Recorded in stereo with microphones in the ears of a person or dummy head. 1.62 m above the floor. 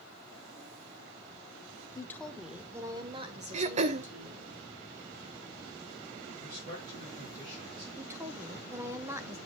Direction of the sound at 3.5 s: 35° right (ahead or behind).